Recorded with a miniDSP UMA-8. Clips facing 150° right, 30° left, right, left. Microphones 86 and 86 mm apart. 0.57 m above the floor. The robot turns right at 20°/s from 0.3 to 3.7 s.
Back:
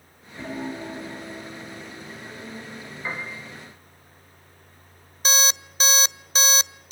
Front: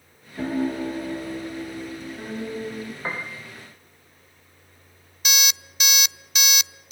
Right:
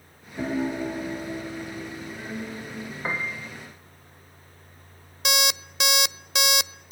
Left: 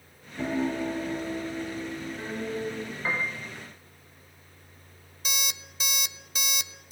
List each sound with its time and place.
0.4 s a piano: 30° right, 5.5 m; by 2.9 s 20° left, 5.5 m
3.0 s a piano: 25° right, 7 m; by 3.4 s 20° right, 7 m
5.2 s an alarm clock: 100° right, 0.5 m